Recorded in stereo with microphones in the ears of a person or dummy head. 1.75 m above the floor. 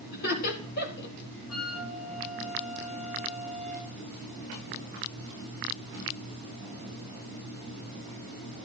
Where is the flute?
70° left (ahead or behind), 5 m.